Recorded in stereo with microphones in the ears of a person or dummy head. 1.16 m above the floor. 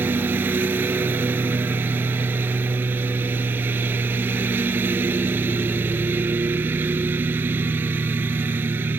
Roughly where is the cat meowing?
No cat meowing in this recording.